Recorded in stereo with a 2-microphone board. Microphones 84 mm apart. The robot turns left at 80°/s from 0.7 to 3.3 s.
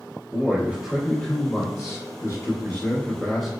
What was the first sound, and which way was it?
A man speaking, 155° right.